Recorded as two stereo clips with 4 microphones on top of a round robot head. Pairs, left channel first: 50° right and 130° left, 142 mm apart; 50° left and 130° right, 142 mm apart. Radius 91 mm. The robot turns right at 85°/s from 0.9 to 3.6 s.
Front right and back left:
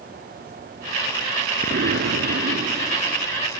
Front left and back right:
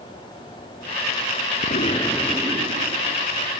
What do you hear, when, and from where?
1.6 s an explosion: 85° left; by 3.3 s 130° right